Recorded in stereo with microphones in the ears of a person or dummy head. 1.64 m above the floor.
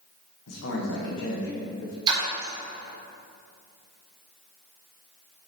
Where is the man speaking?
75° left (ahead or behind), 1.9 m.